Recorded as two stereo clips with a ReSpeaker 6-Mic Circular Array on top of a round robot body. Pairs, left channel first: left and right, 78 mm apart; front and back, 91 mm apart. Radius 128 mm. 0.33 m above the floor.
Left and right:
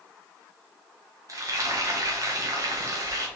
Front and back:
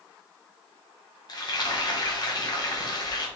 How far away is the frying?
About 1.3 m.